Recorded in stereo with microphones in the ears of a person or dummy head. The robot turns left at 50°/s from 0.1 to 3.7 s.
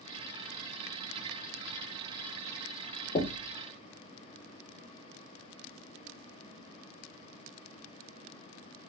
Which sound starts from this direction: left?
Knocking, at 3.1 s.